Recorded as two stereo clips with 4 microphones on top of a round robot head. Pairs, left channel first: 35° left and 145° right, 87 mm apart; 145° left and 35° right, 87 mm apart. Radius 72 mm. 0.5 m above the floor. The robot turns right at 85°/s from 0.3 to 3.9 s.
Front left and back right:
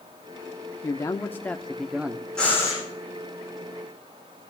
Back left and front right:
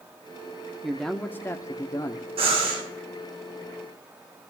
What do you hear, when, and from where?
0.8 s a man speaking: 45° left, 0.9 m; by 2.2 s 165° left, 0.9 m
2.4 s breathing: 45° right, 9.5 m; by 2.8 s 10° right, 9.5 m